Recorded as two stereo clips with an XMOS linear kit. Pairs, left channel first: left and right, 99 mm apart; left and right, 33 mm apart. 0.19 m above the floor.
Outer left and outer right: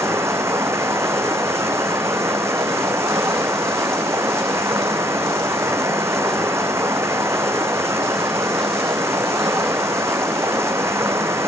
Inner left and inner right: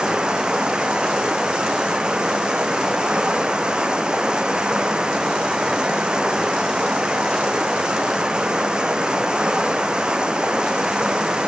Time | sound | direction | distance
0.0 | running water | 30° right (ahead or behind) | 1.4 m